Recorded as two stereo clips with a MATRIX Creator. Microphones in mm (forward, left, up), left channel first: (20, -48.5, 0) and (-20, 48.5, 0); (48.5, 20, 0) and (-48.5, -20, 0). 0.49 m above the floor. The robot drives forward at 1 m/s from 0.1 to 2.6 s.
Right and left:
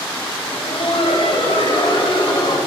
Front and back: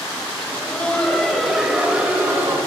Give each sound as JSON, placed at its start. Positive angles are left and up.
{"t": 0.4, "sound": "laughter", "azimuth_deg": -45, "distance_m": 2.5}